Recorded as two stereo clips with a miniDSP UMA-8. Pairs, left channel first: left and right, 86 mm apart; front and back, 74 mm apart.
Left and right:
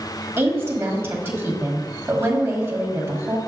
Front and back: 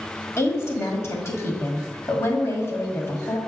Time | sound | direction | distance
0.4 | a woman speaking | 40° right | 1.9 m